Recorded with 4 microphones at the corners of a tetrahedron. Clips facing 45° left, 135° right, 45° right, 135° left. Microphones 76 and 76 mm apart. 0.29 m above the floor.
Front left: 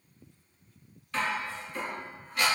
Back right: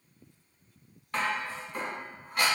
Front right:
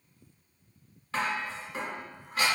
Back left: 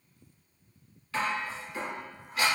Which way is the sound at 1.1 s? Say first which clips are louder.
Even, even; 95° right.